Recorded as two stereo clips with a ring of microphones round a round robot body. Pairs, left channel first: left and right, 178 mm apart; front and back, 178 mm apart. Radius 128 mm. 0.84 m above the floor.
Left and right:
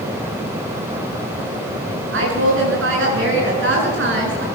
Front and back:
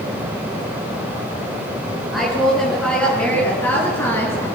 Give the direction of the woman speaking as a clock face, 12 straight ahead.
3 o'clock.